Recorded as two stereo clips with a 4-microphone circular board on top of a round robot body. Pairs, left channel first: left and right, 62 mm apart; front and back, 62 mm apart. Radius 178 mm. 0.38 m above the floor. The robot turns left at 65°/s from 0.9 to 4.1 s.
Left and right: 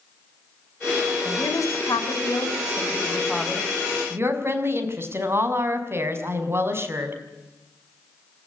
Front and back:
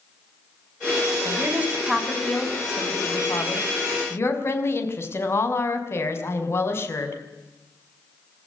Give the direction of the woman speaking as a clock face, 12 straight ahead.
7 o'clock.